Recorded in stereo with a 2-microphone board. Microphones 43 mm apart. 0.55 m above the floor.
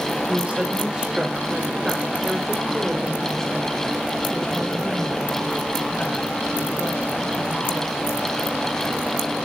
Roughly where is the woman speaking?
Right.